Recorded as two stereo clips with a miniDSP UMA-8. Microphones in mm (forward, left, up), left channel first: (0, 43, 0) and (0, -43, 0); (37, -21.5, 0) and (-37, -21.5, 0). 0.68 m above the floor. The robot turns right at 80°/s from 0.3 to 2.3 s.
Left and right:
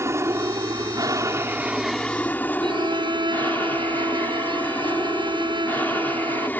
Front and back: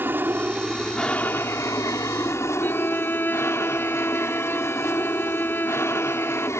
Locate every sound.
0.0 s an aircraft: 130° right; by 6.6 s 30° left
2.6 s a violin: 65° right